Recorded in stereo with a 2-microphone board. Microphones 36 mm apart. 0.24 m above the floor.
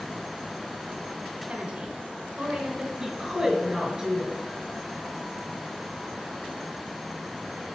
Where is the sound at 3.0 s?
10° right (ahead or behind), 3.5 m.